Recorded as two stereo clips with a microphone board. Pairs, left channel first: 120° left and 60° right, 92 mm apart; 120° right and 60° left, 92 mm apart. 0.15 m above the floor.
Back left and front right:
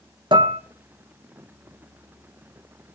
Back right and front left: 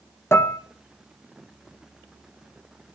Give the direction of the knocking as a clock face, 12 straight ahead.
I don't hear knocking.